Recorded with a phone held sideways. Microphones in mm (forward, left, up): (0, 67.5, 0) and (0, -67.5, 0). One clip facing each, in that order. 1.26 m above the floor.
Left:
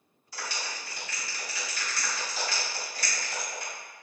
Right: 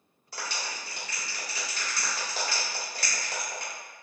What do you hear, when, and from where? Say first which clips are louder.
0.3 s a clap: right 1 dB; 60° right (ahead or behind), 2.0 m